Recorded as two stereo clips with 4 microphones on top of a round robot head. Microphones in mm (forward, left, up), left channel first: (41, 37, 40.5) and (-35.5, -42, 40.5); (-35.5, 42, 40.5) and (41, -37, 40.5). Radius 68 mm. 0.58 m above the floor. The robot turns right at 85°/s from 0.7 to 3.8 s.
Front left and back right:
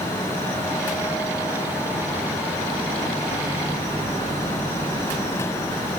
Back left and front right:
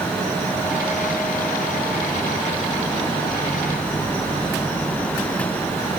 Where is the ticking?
No ticking in this recording.